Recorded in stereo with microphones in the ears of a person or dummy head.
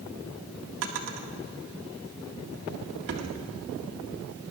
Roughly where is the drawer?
Right.